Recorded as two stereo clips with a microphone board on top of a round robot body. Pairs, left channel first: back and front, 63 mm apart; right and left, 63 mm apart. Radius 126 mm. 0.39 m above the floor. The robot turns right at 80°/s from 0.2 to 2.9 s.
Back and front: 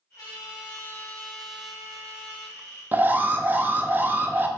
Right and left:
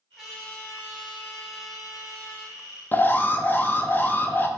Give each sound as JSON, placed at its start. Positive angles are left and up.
{"t": 0.2, "sound": "a trumpet", "azimuth_deg": 170, "distance_m": 1.3}
{"t": 2.9, "sound": "an alarm", "azimuth_deg": -45, "distance_m": 0.5}